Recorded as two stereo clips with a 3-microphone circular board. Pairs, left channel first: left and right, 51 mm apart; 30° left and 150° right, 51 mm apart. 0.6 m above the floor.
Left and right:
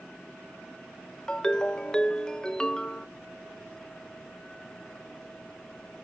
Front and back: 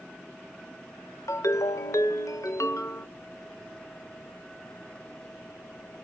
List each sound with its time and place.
1.3 s a ringtone: 10° left, 0.6 m